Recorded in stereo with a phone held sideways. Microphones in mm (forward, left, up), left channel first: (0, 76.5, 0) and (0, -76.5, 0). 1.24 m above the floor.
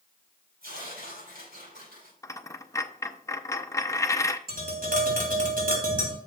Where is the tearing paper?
85° right, 4.5 m.